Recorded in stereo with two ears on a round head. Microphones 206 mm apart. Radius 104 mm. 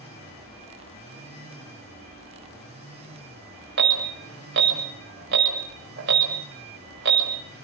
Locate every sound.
3.8 s an alarm: 50° right (ahead or behind), 5.5 m